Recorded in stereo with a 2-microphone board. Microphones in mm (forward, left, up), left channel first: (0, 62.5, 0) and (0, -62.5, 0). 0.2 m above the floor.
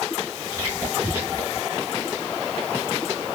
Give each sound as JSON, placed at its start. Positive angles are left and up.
{"t": 0.5, "sound": "whispering", "side_deg": -30, "distance_m": 1.3}